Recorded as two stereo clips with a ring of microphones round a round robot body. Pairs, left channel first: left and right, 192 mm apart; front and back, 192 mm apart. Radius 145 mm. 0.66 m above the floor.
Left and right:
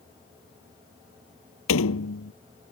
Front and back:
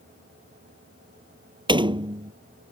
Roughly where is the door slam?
Behind left.